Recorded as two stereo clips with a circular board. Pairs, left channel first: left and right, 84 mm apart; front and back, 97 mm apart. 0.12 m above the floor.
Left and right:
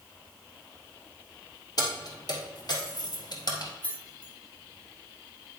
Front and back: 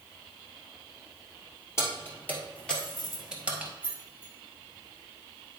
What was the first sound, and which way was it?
Keys jangling, 60° left.